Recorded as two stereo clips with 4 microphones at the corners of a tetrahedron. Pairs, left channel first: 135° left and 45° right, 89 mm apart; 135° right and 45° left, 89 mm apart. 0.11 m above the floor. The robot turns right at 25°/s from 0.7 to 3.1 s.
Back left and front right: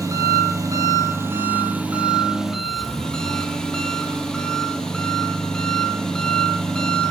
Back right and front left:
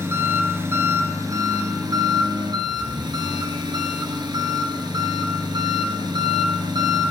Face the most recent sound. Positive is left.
turn(degrees=55)